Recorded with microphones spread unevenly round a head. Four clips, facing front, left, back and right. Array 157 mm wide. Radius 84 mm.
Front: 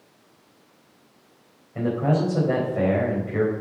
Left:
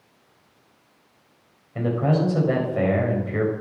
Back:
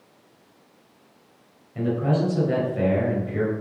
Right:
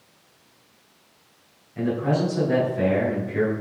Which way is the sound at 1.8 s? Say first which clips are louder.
Left 1 dB, front 1 dB; 55° left.